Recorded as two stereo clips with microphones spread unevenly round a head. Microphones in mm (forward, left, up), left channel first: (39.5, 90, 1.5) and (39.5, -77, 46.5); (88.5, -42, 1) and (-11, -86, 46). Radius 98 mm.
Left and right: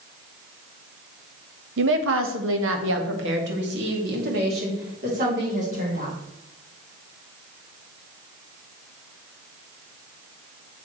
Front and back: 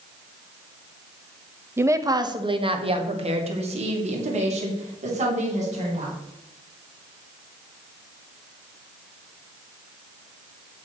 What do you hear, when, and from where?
1.8 s a woman speaking: 80° right, 1.1 m; by 6.2 s 145° right, 4 m